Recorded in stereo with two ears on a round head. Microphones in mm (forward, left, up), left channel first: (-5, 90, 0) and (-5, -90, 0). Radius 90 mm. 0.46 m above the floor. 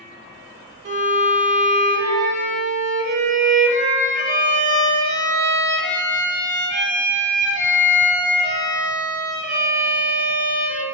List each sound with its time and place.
0.8 s a violin: 40° right (ahead or behind), 0.5 m